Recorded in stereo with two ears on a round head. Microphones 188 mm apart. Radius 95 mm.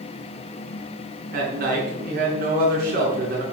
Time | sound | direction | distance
1.3 | a man speaking | 45° right (ahead or behind) | 6 m